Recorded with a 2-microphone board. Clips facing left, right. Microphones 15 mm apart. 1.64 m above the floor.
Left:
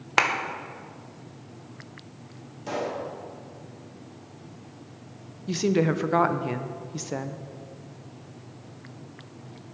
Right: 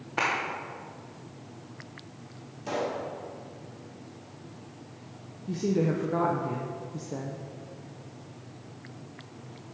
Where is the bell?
I don't hear a bell.